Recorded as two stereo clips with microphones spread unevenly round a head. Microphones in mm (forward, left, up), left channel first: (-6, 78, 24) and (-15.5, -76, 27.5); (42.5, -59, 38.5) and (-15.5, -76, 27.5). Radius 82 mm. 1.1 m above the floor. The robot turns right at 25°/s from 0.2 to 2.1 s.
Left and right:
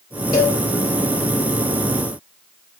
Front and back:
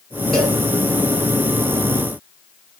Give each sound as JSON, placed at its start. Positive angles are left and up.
{"t": 0.3, "sound": "a cowbell", "azimuth_deg": 80, "distance_m": 0.8}